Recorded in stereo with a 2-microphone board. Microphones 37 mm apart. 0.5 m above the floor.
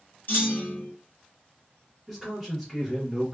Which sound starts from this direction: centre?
A man speaking, at 2.1 s.